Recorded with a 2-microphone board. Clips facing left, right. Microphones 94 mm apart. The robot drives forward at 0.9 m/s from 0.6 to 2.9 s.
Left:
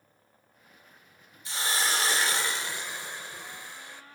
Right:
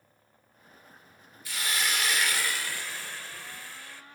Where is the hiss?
25° left (ahead or behind), 0.9 m; by 4.0 s 20° left (ahead or behind), 1.2 m.